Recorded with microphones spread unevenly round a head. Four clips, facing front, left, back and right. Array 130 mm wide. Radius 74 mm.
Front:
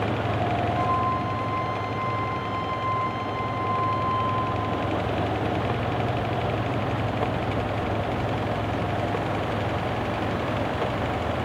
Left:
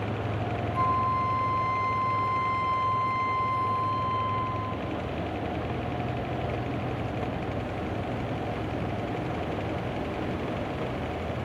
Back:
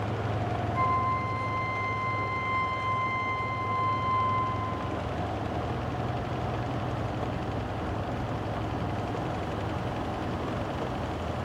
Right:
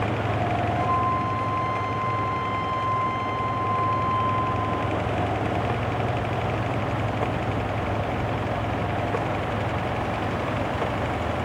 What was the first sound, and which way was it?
A flute, 145° left.